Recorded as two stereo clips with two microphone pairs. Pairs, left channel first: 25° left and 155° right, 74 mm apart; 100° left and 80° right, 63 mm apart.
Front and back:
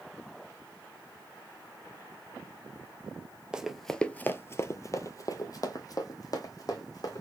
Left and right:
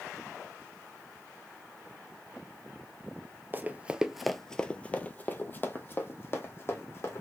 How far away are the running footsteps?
About 0.5 m.